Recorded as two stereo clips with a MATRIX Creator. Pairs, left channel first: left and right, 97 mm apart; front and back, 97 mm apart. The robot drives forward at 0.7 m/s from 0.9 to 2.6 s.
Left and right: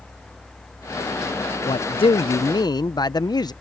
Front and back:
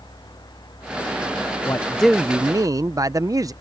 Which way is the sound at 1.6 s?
60° left.